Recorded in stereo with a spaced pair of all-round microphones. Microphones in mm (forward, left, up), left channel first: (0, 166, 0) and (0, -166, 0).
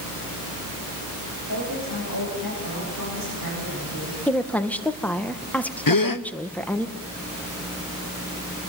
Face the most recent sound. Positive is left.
turn(degrees=80)